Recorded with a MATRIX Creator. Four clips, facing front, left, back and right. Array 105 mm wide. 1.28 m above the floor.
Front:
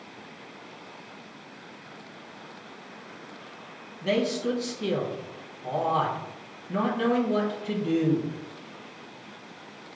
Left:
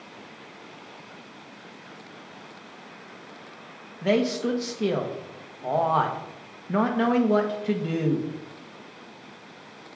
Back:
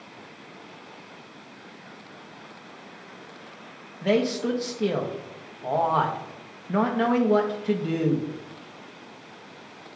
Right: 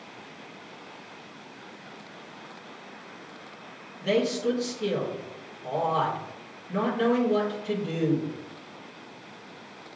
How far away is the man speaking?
About 1.0 m.